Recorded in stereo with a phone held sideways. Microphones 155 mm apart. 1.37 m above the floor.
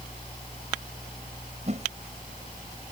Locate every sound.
0.0 s a fan: 35° left (ahead or behind)
1.7 s a whoosh: 45° right (ahead or behind)